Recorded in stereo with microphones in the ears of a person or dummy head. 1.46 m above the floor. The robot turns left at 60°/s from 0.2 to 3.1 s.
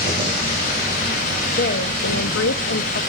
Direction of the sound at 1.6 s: 135° left.